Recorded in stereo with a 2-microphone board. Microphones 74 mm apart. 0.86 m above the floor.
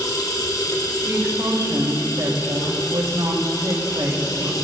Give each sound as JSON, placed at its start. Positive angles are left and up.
{"t": 0.0, "sound": "running water", "side_deg": 60, "distance_m": 1.5}
{"t": 1.0, "sound": "a woman speaking", "side_deg": -65, "distance_m": 3.5}